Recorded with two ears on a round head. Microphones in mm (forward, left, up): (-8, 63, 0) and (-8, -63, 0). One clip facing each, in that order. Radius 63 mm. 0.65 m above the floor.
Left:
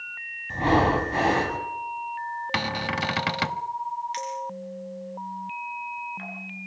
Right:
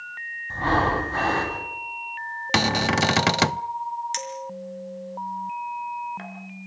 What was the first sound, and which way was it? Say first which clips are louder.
Breathing: left 2 dB; 20° left (ahead or behind).